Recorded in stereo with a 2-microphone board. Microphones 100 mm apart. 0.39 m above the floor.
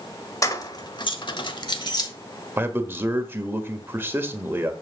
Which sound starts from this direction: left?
Keys jangling, at 0.4 s.